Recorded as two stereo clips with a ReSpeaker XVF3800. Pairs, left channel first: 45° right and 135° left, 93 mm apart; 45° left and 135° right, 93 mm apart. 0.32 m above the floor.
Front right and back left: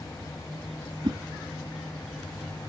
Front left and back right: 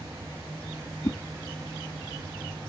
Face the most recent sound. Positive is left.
turn(degrees=100)